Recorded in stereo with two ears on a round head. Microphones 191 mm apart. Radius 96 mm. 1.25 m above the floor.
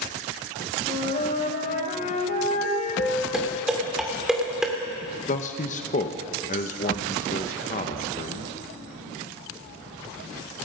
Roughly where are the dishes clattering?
Centre.